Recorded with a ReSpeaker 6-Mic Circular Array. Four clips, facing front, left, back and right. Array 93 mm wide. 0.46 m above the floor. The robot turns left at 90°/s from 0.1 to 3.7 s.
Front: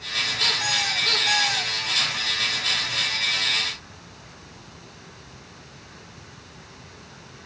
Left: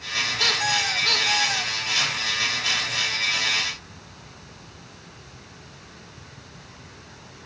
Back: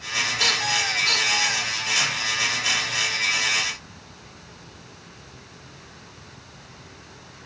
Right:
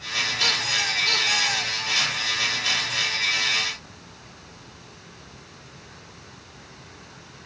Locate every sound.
0.4 s a squeak: 125° left, 3 m; by 1.7 s 10° left, 3 m